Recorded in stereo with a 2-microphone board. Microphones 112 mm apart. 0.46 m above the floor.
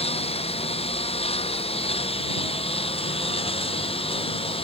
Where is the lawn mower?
65° left (ahead or behind); by 4.6 s 60° left (ahead or behind).